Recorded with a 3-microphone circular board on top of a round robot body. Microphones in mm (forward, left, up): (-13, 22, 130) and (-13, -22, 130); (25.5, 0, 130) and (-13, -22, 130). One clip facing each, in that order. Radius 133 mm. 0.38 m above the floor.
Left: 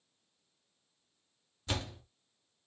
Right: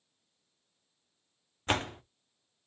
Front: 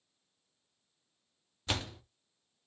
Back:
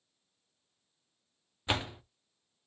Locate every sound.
1.7 s a door slam: 90° right, 0.6 m